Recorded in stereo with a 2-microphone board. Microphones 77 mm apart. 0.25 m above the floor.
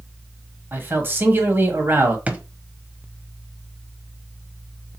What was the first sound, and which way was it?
A man speaking, 30° right (ahead or behind).